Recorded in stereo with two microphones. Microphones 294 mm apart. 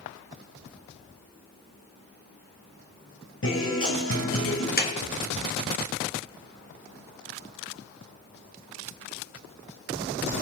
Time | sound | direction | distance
3.4 | a guitar | 40° left (ahead or behind) | 4 m
4.8 | a clap | 30° left (ahead or behind) | 2.5 m